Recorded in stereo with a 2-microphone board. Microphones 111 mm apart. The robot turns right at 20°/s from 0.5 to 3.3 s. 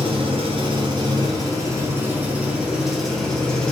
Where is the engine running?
50° right, 0.8 m; by 3.7 s 5° left, 0.8 m.